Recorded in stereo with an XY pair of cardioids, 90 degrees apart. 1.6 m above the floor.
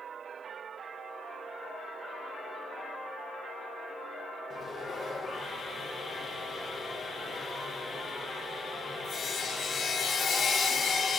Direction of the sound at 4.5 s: 50° left.